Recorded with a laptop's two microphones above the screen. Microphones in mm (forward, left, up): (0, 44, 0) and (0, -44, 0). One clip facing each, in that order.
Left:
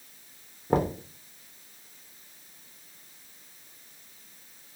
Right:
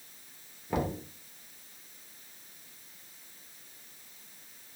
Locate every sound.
0.7 s knocking: 40° left (ahead or behind), 0.5 m